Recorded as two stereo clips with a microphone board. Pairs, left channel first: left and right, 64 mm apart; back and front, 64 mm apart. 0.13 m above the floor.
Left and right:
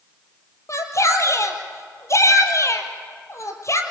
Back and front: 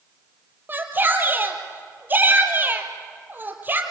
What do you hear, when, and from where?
0.7 s a shout: 55° left, 3 m